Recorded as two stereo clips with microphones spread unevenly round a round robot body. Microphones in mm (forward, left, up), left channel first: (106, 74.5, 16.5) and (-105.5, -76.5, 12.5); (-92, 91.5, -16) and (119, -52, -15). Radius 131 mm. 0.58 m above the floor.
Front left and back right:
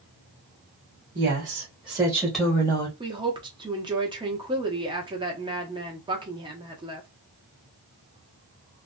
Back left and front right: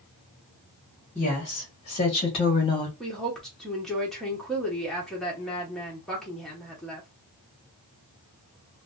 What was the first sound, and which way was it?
A woman speaking, 160° right.